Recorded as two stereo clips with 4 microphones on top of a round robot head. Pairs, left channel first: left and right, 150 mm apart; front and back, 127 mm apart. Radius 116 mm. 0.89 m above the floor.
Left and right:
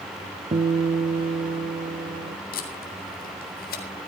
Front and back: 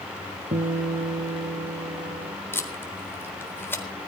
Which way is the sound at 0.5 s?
135° right.